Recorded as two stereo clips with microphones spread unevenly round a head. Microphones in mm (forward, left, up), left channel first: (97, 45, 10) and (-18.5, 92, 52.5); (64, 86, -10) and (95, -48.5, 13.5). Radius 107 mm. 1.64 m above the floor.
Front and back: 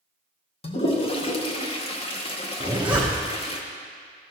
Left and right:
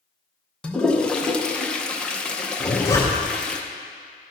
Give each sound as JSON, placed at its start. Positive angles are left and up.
{"t": 0.6, "sound": "a toilet flushing", "azimuth_deg": 10, "distance_m": 0.7}
{"t": 2.6, "sound": "a zipper", "azimuth_deg": 170, "distance_m": 0.7}